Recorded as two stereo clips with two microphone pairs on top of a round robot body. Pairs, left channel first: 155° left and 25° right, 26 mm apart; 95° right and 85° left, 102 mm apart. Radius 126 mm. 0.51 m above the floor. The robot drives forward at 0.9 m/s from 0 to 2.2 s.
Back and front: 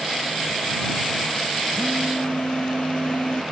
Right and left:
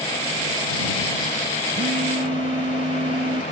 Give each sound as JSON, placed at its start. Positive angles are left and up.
{"t": 1.8, "sound": "a phone buzzing", "azimuth_deg": 95}